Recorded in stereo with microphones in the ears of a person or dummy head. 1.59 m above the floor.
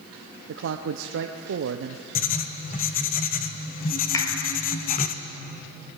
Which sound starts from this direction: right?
A man speaking, at 0.5 s.